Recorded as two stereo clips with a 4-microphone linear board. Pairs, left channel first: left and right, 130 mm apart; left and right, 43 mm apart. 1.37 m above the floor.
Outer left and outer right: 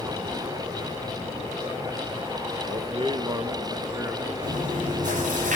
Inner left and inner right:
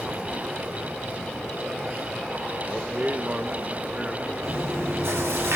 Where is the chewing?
85° right, 8 m.